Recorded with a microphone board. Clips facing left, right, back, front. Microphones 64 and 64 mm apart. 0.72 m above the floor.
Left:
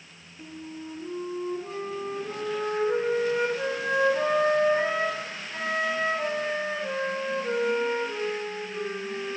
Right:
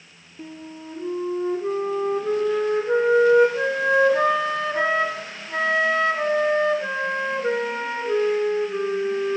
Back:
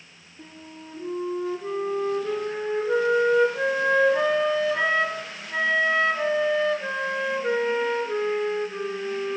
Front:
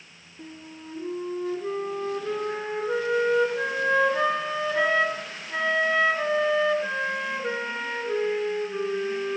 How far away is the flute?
About 1.8 m.